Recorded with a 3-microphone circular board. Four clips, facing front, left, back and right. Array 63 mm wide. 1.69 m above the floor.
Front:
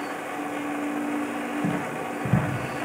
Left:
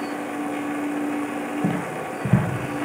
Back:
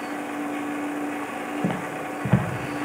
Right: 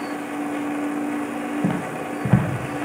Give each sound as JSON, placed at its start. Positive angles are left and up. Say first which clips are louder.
{"t": 1.6, "sound": "footsteps", "louder": "right 1 dB, even", "azimuth_deg": -145, "distance_m": 2.5}